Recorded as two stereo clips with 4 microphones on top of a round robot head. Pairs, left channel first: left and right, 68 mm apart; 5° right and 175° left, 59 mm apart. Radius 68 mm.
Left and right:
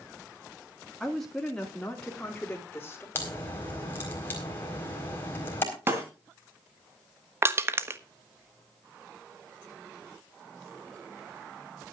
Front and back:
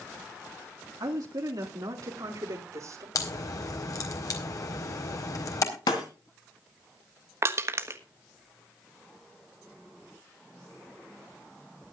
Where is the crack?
25° left, 4 m.